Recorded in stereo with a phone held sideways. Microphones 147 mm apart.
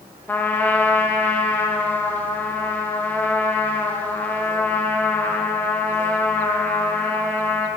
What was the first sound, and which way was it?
A trumpet, 10° left (ahead or behind).